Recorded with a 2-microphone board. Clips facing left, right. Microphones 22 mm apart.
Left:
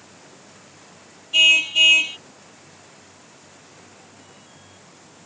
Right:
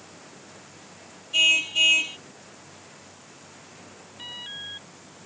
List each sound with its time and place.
1.3 s a car horn: 20° left (ahead or behind)
4.2 s an alarm: 60° right (ahead or behind)